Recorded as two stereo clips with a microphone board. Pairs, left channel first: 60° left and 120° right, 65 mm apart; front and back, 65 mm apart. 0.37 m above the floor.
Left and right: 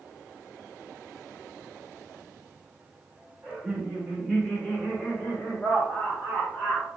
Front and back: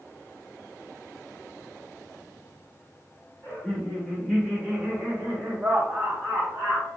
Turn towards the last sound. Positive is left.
turn(degrees=120)